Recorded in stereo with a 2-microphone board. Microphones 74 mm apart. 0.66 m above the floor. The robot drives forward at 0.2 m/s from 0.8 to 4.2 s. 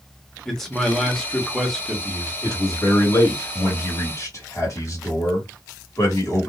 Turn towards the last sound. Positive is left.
turn(degrees=45)  # may be behind; listen again after turning